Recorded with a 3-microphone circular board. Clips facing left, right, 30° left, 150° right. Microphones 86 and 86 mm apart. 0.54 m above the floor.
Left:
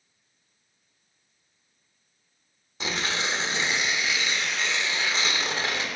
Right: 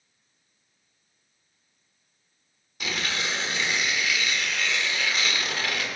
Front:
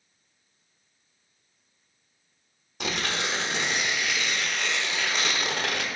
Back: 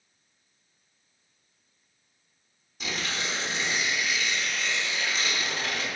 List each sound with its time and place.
2.8 s tearing paper: 30° left, 0.8 m